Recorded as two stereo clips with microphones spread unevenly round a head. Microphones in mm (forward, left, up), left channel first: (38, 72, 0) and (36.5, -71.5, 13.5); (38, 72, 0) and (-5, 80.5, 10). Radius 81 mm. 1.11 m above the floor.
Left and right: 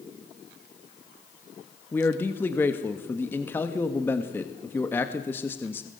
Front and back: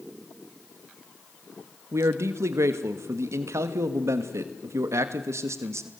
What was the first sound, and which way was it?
A man speaking, 165° left.